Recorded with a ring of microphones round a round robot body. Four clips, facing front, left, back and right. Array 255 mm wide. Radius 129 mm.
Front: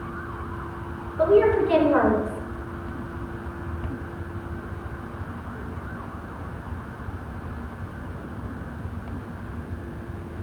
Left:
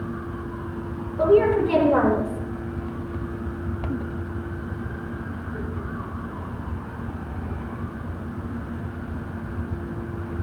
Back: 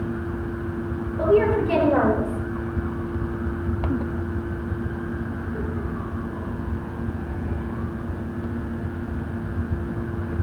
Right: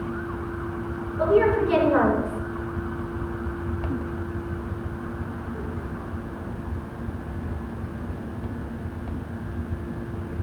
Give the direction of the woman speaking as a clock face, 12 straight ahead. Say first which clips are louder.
Left 2 dB, front 1 dB; 8 o'clock.